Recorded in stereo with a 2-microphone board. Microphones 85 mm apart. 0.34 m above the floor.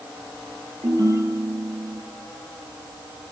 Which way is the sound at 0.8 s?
40° right (ahead or behind).